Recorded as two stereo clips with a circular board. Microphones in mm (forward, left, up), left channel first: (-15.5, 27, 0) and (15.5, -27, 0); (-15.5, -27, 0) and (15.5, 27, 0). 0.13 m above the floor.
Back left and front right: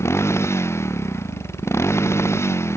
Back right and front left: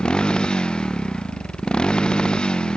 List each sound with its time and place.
0.0 s a motorcycle: 165° left